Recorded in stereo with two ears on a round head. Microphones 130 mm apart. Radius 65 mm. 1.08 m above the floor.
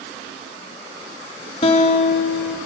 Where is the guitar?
40° left (ahead or behind), 0.6 m.